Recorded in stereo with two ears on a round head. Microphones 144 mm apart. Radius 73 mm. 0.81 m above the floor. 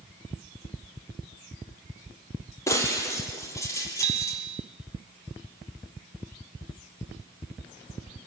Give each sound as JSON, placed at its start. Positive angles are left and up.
{"t": 2.7, "sound": "breaking glass", "side_deg": 20, "distance_m": 4.5}
{"t": 4.0, "sound": "a bicycle bell", "side_deg": -45, "distance_m": 3.0}